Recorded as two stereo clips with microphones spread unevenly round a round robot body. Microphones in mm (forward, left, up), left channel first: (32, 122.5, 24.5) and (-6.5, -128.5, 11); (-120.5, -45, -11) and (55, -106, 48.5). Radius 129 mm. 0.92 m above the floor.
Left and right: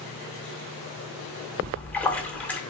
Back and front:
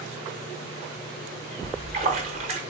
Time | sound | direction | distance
1.6 | a splash | straight ahead | 0.7 m